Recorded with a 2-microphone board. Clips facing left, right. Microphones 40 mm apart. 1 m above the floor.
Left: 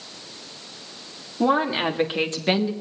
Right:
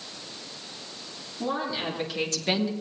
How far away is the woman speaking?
About 2.5 m.